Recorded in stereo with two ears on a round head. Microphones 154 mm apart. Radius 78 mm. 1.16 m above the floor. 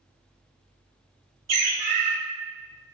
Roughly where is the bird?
Right.